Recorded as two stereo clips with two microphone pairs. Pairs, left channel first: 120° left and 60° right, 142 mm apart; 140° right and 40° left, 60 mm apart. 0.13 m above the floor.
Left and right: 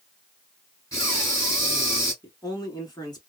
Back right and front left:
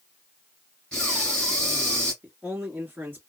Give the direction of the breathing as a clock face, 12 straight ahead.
7 o'clock.